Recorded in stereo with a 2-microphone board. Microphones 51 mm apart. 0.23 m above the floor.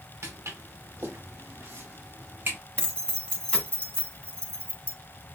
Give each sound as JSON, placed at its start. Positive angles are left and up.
{"t": 0.2, "sound": "footsteps", "side_deg": -60, "distance_m": 2.0}
{"t": 2.8, "sound": "keys jangling", "side_deg": 20, "distance_m": 1.3}